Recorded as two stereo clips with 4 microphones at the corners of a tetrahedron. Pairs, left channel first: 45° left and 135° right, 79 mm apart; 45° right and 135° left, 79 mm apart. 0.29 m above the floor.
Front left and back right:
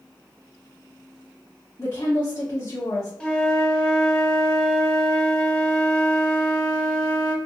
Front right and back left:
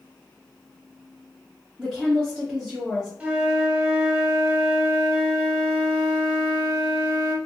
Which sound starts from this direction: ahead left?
A woman speaking, at 1.8 s.